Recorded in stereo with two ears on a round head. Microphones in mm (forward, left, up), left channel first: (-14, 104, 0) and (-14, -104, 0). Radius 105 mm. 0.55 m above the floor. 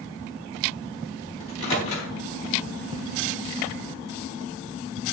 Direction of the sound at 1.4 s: 30° left (ahead or behind).